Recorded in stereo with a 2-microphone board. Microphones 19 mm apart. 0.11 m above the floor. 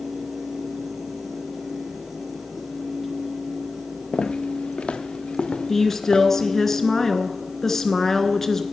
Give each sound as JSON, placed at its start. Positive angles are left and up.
{"t": 4.1, "sound": "footsteps", "side_deg": 65, "distance_m": 0.7}
{"t": 5.7, "sound": "a woman speaking", "side_deg": 20, "distance_m": 1.1}